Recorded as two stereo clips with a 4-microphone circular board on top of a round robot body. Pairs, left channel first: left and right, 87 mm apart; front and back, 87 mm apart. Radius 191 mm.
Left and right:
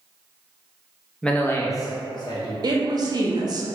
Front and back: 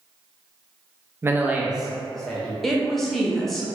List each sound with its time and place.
1.2 s a man speaking: 160° left, 0.8 m; by 2.5 s 80° left, 1.1 m
2.6 s a woman speaking: 85° right, 0.9 m